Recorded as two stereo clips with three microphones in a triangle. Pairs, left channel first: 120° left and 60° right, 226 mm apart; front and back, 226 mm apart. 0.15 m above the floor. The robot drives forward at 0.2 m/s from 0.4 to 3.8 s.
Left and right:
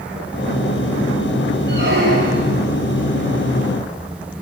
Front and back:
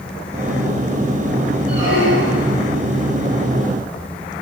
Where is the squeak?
20° right, 4.5 m.